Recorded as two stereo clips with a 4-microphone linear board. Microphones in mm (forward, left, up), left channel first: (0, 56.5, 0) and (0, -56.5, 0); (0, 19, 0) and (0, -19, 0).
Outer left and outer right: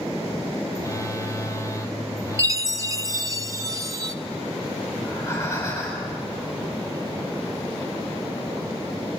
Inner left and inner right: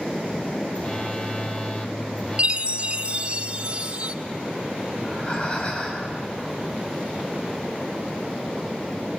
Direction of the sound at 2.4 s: 25° right (ahead or behind).